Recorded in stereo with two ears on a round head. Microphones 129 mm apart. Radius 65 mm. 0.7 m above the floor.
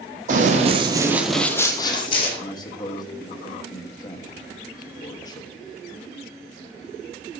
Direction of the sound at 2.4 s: 25° left (ahead or behind).